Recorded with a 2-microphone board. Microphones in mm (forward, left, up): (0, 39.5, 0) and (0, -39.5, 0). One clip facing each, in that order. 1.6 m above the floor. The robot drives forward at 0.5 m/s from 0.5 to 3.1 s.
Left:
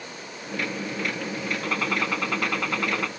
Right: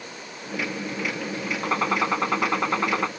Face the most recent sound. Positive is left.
turn(degrees=-25)  # may be behind; listen again after turning